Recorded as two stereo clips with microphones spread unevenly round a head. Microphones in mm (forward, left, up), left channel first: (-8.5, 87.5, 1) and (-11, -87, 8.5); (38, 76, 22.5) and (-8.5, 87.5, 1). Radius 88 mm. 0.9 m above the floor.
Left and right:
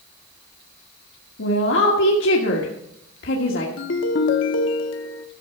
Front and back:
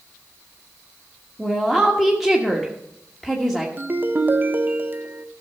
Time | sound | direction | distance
1.4 | a woman speaking | 85° left | 1.4 m
3.8 | a ringtone | 110° left | 0.8 m